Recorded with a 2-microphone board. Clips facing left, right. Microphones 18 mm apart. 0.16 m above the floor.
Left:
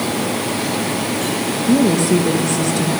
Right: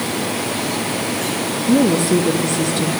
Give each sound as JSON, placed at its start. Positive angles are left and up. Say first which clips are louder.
{"t": 1.7, "sound": "a woman speaking", "louder": "even", "side_deg": 20, "distance_m": 4.0}